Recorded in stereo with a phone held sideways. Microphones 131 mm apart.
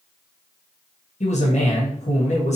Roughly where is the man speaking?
Left.